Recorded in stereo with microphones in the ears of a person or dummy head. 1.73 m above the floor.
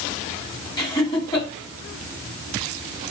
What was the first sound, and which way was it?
Laughter, 25° left (ahead or behind).